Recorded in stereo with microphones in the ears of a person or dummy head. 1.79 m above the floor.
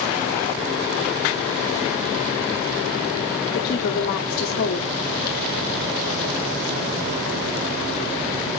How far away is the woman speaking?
About 0.9 m.